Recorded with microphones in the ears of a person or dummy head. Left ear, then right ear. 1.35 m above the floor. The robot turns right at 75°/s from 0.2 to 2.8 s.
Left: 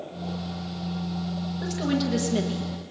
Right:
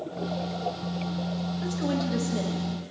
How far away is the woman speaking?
About 1.7 m.